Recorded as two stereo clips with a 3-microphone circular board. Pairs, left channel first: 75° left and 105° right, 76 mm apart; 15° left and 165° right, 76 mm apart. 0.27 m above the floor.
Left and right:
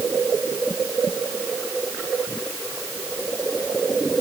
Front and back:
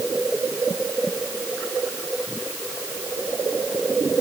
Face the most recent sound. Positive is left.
No sound to turn to.